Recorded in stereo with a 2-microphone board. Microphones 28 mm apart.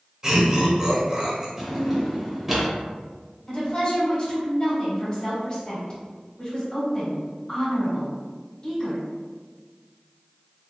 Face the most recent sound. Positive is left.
turn(degrees=20)  # may be behind; listen again after turning